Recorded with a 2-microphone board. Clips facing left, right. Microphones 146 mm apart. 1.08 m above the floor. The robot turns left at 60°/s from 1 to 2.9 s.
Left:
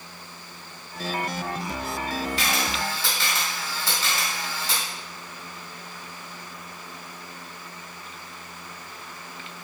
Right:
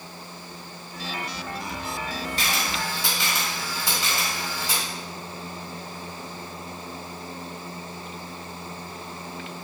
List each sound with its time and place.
2.4 s a camera shutter: 45° right (ahead or behind), 2.5 m; by 4.8 s 15° right (ahead or behind), 2.5 m